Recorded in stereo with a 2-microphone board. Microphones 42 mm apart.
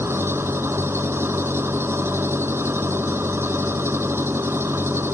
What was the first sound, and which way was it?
An engine running, 75° right (ahead or behind).